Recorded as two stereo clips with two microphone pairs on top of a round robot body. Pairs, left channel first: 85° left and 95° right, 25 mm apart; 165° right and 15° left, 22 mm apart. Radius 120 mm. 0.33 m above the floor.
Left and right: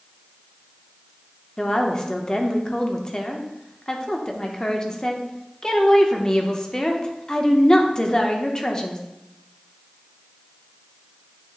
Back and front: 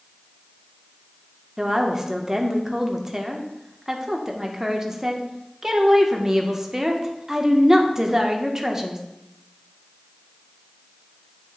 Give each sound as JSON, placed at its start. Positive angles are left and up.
{"t": 1.6, "sound": "a woman speaking", "azimuth_deg": 40, "distance_m": 1.0}